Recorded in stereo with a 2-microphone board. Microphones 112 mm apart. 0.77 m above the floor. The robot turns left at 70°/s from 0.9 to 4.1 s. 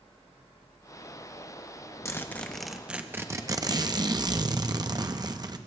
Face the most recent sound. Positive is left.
turn(degrees=-100)